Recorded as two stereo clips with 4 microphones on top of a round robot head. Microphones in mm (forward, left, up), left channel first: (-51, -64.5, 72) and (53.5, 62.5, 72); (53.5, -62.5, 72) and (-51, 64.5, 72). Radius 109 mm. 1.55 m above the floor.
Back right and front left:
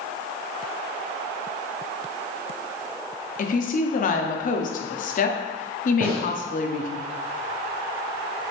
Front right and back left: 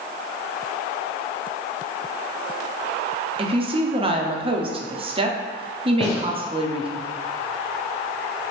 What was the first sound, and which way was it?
A woman speaking, 170° right.